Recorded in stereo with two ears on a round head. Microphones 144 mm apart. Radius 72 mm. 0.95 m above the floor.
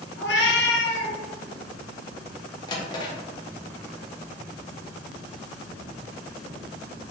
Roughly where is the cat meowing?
Left.